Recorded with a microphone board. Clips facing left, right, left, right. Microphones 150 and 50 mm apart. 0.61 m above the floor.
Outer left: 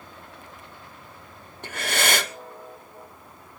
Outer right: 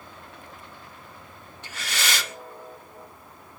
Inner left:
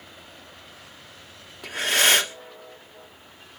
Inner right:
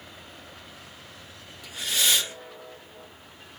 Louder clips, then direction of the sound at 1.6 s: Outer left 6 dB, inner left 6 dB; 55° left (ahead or behind).